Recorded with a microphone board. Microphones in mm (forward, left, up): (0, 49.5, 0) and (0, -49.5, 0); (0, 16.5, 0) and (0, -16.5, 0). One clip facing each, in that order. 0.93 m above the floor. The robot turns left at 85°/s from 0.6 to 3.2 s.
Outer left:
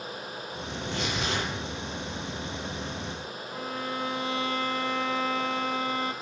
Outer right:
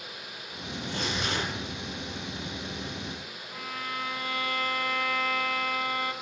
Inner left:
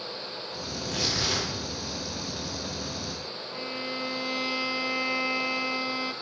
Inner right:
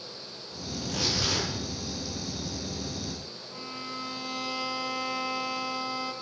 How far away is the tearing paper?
About 7 m.